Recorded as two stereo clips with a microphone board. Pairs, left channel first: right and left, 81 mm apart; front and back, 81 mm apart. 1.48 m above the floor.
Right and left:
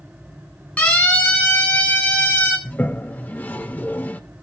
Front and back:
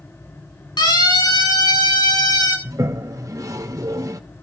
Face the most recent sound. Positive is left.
turn(degrees=-150)